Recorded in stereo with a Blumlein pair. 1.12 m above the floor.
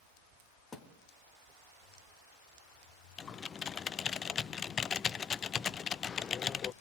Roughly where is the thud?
Ahead.